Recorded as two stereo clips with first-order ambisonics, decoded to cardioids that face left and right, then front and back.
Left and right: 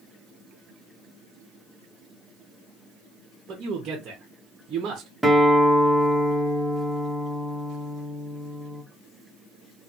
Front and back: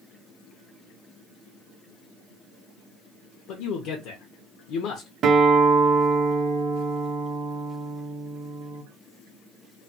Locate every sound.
3.5 s a man speaking: 30° right, 0.8 m
5.2 s a guitar: 175° right, 0.7 m